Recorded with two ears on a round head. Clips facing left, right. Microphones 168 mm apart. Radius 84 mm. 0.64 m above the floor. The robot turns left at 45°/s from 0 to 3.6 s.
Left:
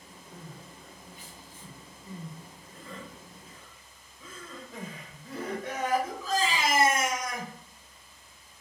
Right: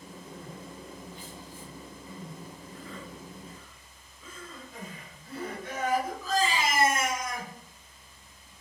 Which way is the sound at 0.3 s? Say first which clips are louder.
Right 2 dB; 65° right (ahead or behind).